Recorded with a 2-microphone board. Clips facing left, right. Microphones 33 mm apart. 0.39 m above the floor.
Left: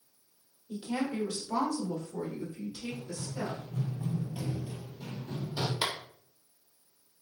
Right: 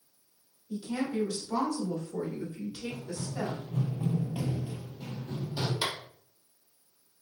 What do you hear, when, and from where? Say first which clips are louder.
0.7 s a woman speaking: right 1 dB; 40° left (ahead or behind), 1.0 m; by 3.6 s 55° right (ahead or behind), 1.3 m
2.9 s running footsteps: right 2 dB; 55° right (ahead or behind), 1.0 m; by 5.7 s 15° left (ahead or behind), 0.9 m
5.8 s a clap: left 1 dB; 15° left (ahead or behind), 0.8 m